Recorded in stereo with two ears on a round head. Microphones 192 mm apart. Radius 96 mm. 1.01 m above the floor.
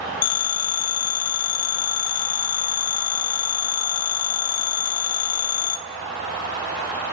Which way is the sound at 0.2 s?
80° left.